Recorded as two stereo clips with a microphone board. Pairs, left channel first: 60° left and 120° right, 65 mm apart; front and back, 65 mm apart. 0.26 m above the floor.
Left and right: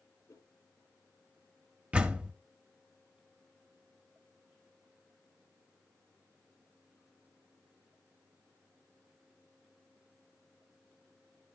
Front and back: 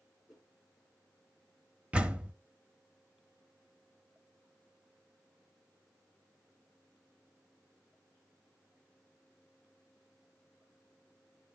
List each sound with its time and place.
0.3 s a whoosh: 100° left, 3.5 m
1.9 s a door slam: 150° right, 0.6 m